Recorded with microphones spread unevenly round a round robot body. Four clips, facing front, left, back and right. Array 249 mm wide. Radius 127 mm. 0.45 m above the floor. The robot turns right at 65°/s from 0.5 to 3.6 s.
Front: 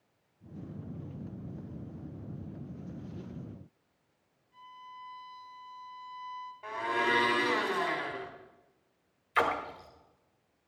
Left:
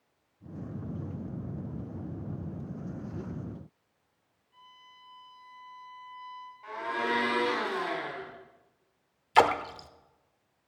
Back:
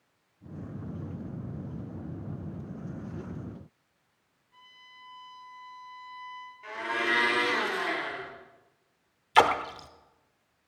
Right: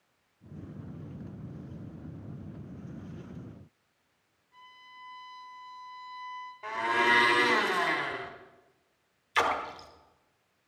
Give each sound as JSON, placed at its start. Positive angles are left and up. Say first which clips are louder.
{"t": 4.5, "sound": "a violin", "louder": "right 3 dB, front 7 dB", "azimuth_deg": -135, "distance_m": 5.5}
{"t": 6.6, "sound": "a blender", "louder": "right 5 dB, front 1 dB", "azimuth_deg": -75, "distance_m": 3.5}
{"t": 9.3, "sound": "a splash", "louder": "left 6 dB, back 7 dB", "azimuth_deg": 130, "distance_m": 1.0}